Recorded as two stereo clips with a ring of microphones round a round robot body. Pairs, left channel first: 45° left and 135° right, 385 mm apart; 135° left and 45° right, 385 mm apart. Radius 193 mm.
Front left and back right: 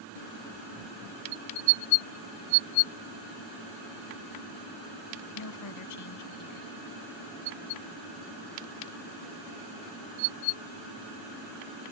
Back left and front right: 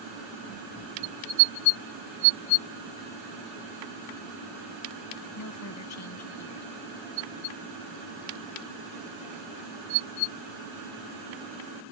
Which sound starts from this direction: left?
A woman speaking, at 5.3 s.